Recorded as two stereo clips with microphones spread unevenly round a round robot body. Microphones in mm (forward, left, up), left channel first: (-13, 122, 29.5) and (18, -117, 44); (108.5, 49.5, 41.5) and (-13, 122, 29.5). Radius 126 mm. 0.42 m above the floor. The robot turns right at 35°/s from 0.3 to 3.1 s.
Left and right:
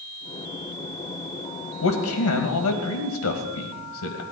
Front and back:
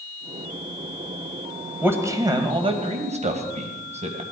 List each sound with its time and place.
1.8 s a man speaking: 75° left, 2.5 m; by 4.2 s 120° left, 2.5 m